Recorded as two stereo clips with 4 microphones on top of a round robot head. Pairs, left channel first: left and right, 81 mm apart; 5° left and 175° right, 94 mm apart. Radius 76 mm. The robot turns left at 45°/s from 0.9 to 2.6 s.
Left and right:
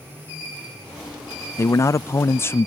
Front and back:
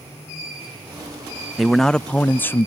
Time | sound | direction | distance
1.6 | a man speaking | 95° left | ?